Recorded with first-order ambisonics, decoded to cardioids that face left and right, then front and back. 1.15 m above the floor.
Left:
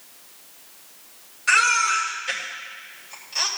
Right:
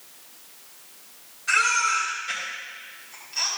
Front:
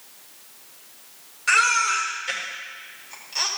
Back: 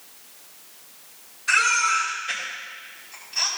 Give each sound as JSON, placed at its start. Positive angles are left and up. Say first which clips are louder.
{"t": 1.5, "sound": "a baby crying", "louder": "left 3 dB, front 1 dB", "azimuth_deg": 40, "distance_m": 3.5}